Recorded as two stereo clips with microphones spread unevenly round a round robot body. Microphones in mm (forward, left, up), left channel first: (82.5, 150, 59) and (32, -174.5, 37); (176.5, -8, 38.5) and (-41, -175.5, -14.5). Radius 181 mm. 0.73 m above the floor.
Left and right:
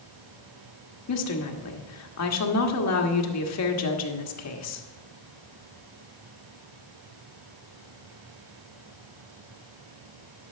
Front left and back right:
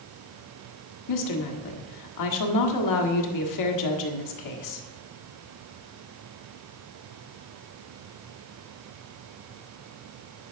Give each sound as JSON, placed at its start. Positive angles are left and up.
{"t": 1.1, "sound": "a woman speaking", "azimuth_deg": 40, "distance_m": 1.5}